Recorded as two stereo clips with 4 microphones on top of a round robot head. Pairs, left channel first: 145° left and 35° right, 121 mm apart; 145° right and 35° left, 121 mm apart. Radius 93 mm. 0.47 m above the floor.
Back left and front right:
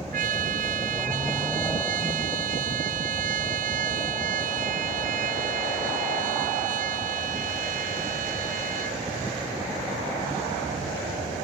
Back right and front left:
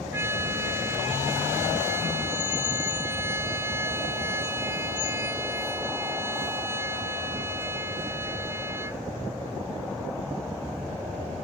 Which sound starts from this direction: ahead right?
A trumpet, at 0.1 s.